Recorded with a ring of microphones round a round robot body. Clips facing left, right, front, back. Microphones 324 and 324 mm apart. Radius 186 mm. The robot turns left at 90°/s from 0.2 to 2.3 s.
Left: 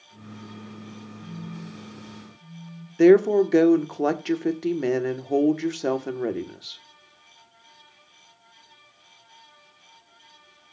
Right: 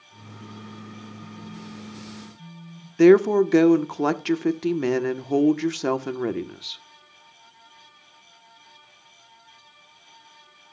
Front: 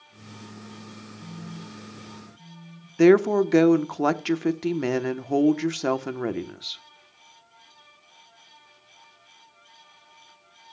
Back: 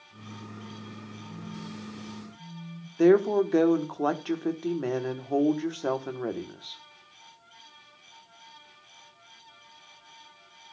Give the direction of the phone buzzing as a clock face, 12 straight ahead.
12 o'clock.